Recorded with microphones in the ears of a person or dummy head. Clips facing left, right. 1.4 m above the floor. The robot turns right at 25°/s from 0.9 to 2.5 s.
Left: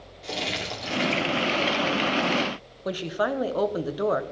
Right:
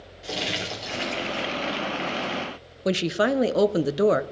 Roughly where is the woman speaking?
Right.